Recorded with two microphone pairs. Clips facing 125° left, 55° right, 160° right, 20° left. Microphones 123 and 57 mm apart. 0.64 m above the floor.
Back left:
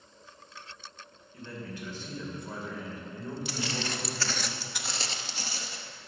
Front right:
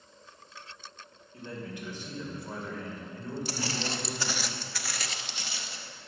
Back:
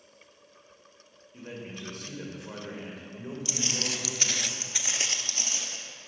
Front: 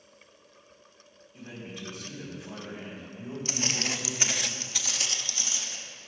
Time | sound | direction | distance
1.3 | a man speaking | 115° right | 2.5 m
3.5 | footsteps | 10° right | 1.0 m